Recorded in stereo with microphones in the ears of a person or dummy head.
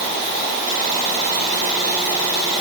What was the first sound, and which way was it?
Only background noise.